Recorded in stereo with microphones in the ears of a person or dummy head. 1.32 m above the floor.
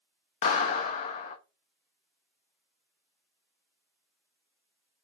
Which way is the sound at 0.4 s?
40° left (ahead or behind).